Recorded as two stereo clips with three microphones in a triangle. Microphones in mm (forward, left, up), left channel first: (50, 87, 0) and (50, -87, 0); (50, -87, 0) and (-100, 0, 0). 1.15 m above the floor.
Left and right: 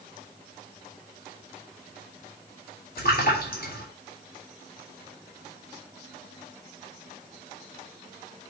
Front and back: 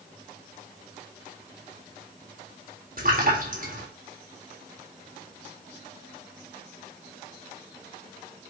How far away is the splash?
About 3.5 m.